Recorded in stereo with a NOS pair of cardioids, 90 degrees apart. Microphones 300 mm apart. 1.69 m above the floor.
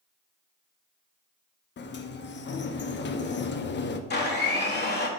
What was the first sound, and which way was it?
A sliding door, 35° left.